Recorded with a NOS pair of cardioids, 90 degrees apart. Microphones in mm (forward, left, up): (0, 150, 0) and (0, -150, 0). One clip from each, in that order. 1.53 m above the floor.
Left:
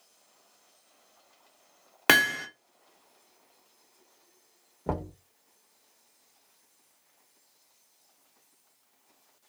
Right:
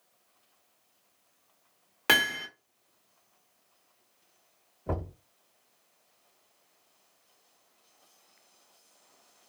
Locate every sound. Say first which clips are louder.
2.1 s hammering: left 2 dB; 30° left, 0.7 m
4.9 s knocking: left 2 dB; 55° left, 1.4 m